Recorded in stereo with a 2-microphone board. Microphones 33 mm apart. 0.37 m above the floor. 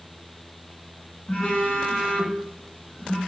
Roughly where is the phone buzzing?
Left.